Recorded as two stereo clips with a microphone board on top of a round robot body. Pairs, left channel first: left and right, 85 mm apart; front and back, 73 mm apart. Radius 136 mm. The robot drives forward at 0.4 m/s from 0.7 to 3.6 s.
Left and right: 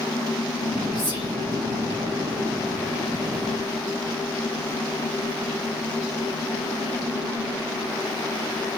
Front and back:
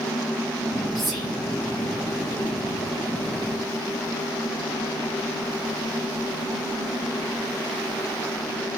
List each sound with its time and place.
0.9 s whispering: 90° right, 1.3 m; by 1.3 s 95° right, 1.3 m